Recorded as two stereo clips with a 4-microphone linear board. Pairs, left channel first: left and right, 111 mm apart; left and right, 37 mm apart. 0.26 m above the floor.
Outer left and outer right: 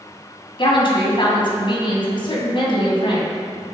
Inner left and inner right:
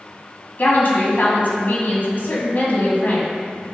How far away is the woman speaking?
About 2 m.